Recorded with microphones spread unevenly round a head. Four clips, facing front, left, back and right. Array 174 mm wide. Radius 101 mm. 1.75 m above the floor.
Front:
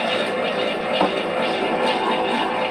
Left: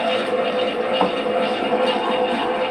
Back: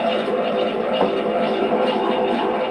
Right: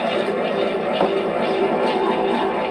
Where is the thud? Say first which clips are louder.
Right 1 dB, even; 110° right, 1.8 m.